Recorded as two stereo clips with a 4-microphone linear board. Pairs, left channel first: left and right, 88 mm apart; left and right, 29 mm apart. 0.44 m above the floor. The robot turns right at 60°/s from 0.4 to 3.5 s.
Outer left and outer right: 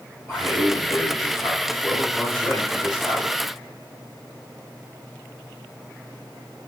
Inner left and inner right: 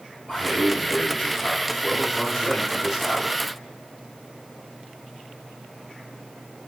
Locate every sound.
0.3 s a man speaking: 50° left, 1.9 m; by 3.3 s 135° right, 1.9 m